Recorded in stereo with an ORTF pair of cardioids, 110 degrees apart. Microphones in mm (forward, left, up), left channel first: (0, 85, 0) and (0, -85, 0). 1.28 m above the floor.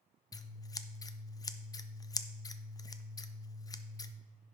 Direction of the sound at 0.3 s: 20° left.